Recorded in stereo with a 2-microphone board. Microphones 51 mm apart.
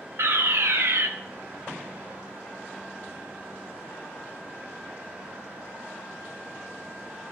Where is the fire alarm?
60° right (ahead or behind), 0.8 m.